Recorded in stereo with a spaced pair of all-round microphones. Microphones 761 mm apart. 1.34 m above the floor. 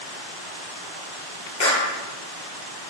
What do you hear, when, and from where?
1.6 s a clap: 70° left (ahead or behind), 1.3 m